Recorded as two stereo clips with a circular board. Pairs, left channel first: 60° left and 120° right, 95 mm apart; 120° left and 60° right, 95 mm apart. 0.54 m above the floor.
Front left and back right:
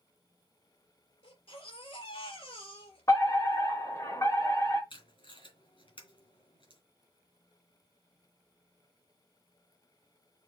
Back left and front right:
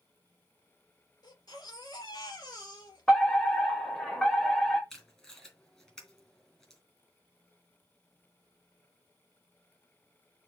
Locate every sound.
1.2 s a baby crying: 75° left, 3.5 m
3.1 s a fire alarm: 40° left, 2.5 m
4.9 s tape being pulled: 35° left, 3 m